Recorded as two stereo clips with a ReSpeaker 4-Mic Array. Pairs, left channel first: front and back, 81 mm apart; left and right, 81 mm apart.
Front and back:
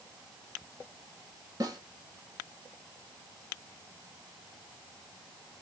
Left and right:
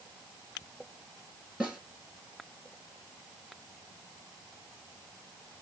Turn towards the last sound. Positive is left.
turn(degrees=-165)